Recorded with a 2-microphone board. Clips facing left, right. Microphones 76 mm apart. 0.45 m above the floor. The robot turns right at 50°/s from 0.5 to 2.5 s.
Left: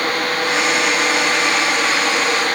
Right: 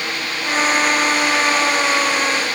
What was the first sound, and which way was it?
Only background noise.